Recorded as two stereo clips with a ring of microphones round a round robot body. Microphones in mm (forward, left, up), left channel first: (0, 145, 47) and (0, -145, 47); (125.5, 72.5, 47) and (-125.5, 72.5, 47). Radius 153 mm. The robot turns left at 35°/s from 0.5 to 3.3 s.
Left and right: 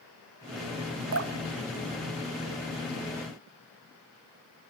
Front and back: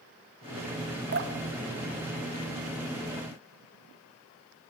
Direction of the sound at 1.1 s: 130° right.